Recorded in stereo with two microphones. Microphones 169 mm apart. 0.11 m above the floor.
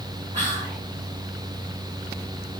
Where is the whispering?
45° right (ahead or behind), 1.6 m.